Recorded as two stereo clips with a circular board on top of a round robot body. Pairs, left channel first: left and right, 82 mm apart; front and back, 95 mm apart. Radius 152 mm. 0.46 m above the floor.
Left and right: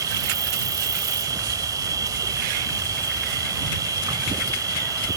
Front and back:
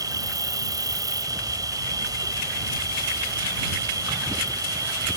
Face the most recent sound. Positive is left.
turn(degrees=-135)